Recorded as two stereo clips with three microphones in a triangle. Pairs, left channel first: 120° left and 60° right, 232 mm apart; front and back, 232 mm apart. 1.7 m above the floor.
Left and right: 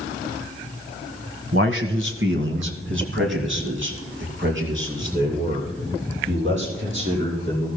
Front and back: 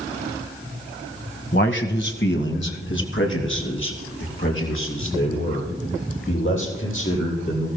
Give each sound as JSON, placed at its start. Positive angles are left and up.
{"t": 1.5, "sound": "a man speaking", "azimuth_deg": -35, "distance_m": 1.3}